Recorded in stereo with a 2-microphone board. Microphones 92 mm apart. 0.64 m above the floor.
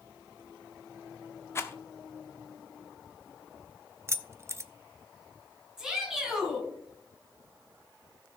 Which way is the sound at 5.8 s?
5° right (ahead or behind).